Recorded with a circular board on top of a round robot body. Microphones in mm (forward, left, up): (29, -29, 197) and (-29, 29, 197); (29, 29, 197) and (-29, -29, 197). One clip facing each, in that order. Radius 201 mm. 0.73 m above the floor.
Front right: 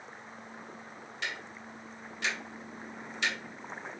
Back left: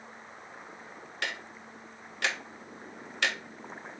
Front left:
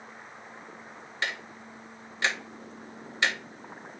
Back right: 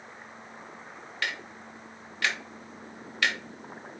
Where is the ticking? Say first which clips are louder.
Back left 2 dB, front left 1 dB; 110° left, 1.0 m.